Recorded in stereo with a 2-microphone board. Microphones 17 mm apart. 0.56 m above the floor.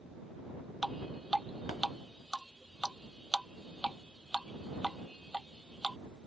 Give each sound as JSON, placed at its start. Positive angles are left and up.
{"t": 0.8, "sound": "dripping", "side_deg": 0}